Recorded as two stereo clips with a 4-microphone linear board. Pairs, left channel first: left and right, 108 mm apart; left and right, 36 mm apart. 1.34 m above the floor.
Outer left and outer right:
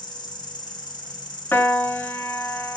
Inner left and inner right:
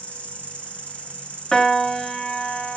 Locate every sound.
0.0 s an insect: 45° left (ahead or behind), 1.1 m
1.5 s a piano: 25° left (ahead or behind), 0.6 m